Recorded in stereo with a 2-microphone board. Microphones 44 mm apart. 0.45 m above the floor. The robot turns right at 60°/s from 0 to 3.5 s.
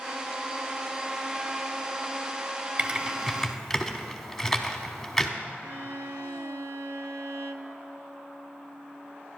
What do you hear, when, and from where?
2.8 s typing on a keyboard: 35° right (ahead or behind), 0.9 m; by 5.3 s 5° left (ahead or behind), 0.9 m
5.6 s a violin: 75° right (ahead or behind), 0.6 m